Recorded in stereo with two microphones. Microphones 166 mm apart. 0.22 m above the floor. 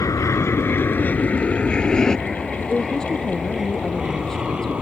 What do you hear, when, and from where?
0.0 s an aircraft: 20° left (ahead or behind); by 4.8 s 5° right (ahead or behind)
2.7 s a woman speaking: 5° left (ahead or behind)